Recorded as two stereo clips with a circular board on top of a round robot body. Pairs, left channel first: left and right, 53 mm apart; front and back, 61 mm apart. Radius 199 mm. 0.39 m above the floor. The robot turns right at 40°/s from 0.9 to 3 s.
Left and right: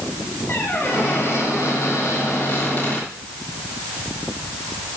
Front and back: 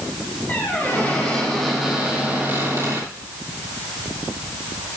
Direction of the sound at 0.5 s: 55° left.